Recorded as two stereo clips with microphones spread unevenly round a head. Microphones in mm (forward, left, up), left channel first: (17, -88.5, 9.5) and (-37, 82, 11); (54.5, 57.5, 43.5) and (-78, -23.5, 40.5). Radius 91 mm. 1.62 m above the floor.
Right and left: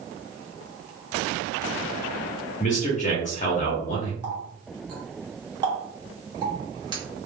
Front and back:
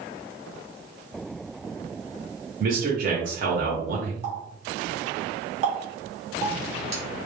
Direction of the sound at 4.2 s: 165° left.